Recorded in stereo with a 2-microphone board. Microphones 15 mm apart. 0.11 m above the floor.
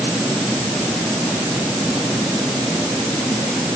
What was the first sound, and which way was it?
Only background noise.